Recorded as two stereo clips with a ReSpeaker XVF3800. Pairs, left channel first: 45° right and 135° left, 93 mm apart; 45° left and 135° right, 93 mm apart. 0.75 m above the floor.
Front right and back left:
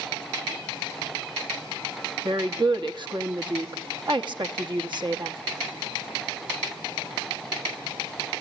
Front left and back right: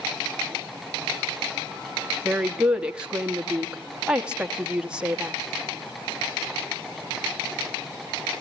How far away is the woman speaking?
About 1.0 m.